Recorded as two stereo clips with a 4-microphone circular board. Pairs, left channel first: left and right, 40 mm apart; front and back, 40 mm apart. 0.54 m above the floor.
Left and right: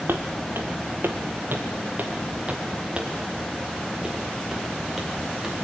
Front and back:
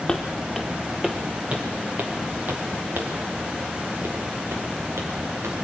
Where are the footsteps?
80° right, 1.9 m; by 5.5 s 175° right, 4.5 m.